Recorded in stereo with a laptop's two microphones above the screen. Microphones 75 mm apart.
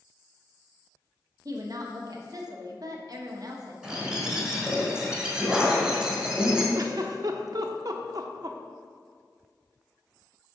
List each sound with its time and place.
1.4 s a woman speaking: 55° right (ahead or behind), 1.1 m
3.8 s a bird: 10° right (ahead or behind), 1.4 m
6.8 s a giggle: 55° right (ahead or behind), 0.6 m